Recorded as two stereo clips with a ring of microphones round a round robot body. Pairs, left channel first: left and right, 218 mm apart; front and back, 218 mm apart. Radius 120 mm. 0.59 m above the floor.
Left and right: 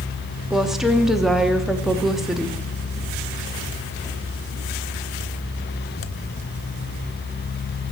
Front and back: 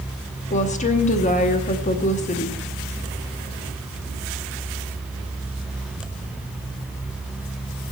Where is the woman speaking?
5° right, 1.0 m.